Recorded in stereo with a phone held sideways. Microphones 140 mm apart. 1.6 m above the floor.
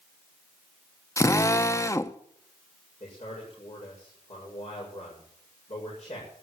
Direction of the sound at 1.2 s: 20° left (ahead or behind).